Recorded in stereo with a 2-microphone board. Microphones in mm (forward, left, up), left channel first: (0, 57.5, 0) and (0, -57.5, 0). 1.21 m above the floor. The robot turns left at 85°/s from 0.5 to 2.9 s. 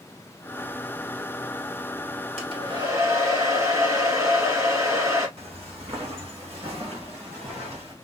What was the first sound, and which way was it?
A hair dryer, 105° right.